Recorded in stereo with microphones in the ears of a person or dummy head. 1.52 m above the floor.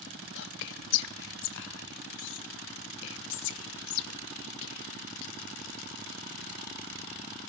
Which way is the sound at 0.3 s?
65° left (ahead or behind).